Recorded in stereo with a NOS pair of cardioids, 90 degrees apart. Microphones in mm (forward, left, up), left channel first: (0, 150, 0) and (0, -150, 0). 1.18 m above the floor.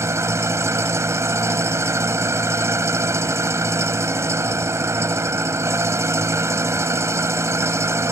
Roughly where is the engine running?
Ahead.